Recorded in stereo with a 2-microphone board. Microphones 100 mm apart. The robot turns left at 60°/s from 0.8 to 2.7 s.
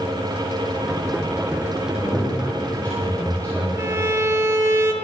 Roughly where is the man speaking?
Ahead left.